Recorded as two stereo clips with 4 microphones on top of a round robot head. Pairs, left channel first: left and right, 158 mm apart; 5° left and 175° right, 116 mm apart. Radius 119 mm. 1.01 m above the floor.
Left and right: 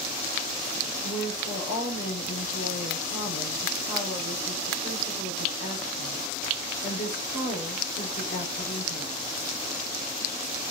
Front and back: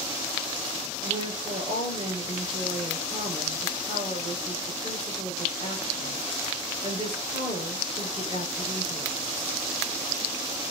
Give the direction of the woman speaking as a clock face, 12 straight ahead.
7 o'clock.